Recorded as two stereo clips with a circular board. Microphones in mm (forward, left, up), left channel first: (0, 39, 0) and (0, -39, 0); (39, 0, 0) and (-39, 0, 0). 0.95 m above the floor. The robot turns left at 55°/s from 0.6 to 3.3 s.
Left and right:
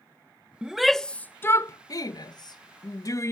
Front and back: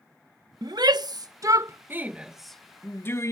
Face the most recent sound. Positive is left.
turn(degrees=45)